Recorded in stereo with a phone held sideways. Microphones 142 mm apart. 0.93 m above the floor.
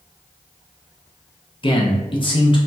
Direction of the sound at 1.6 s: 35° left (ahead or behind).